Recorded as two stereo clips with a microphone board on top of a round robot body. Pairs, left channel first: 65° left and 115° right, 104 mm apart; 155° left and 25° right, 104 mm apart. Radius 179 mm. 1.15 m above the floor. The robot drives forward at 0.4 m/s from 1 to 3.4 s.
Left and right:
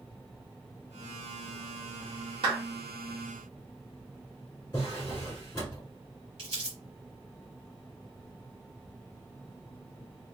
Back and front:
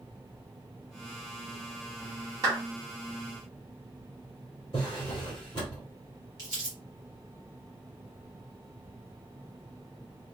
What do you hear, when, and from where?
2.4 s a clap: 80° right, 0.6 m; by 2.6 s 85° right, 0.6 m
4.7 s a drawer: 130° left, 1.0 m
6.4 s crumpling: 75° right, 1.1 m